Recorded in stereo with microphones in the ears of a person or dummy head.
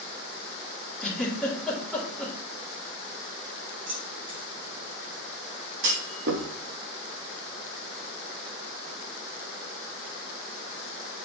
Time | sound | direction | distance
1.0 | a giggle | 5° right (ahead or behind) | 2 m
3.9 | keys jangling | 40° right (ahead or behind) | 1.4 m
5.8 | a clunk | 60° right (ahead or behind) | 1.2 m